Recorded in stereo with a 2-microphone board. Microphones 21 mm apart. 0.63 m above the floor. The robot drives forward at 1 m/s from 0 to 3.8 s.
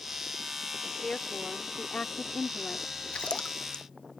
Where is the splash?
60° left (ahead or behind); by 3.8 s 55° left (ahead or behind).